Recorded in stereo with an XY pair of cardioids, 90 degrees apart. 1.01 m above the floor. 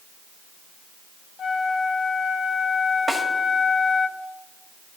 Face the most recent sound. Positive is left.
turn(degrees=-25)